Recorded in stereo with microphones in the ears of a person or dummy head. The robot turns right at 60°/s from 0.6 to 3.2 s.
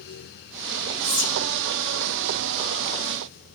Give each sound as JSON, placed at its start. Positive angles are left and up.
{"t": 1.0, "sound": "whispering", "side_deg": 70, "distance_m": 1.2}